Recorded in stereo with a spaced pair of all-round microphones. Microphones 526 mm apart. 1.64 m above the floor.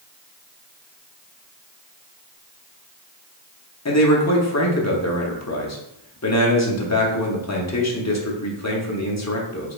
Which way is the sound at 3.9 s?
30° left (ahead or behind).